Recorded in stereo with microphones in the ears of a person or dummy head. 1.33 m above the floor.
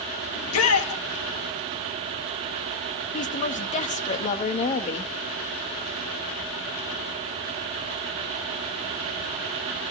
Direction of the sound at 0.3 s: 80° left.